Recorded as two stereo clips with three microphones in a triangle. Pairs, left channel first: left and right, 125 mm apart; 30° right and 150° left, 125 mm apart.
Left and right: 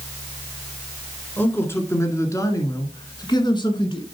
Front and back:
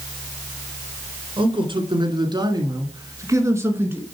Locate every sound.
1.4 s a man speaking: 155° left, 1.8 m; by 4.0 s 85° left, 1.7 m